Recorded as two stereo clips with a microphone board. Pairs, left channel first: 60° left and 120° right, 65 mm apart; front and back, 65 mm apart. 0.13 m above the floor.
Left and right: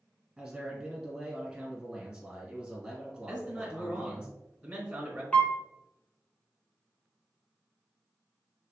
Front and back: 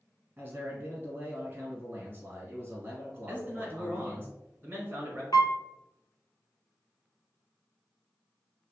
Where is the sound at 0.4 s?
170° left, 1.5 m.